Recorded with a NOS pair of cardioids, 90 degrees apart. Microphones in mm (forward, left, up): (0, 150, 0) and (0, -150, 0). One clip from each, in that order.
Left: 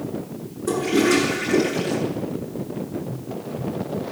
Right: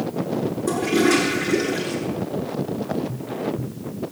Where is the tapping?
20° right, 2.5 m.